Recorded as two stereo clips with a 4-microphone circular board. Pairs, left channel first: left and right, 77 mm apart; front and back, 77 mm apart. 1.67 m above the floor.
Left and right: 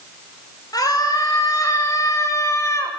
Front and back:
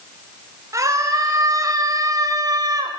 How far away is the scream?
About 8.5 m.